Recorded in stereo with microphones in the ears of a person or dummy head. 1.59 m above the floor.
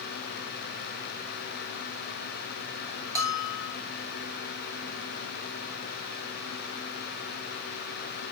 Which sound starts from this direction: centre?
A bell, at 3.1 s.